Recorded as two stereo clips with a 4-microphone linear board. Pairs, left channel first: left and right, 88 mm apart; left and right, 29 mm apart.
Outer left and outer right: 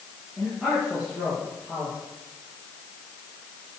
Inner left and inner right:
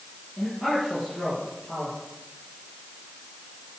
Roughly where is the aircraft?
No aircraft in this recording.